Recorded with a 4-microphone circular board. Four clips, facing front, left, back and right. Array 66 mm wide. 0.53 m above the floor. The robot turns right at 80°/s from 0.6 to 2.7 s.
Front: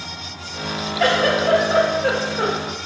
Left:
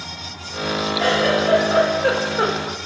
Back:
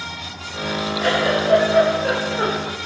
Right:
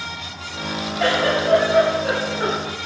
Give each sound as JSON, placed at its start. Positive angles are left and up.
{"t": 1.0, "sound": "a giggle", "azimuth_deg": -20, "distance_m": 1.5}